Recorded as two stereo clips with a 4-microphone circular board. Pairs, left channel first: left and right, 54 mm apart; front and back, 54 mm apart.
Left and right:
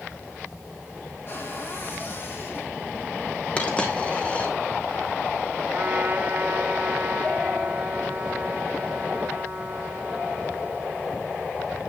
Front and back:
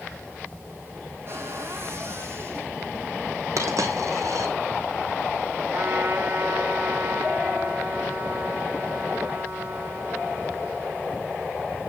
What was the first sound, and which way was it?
A cupboard door, 140° left.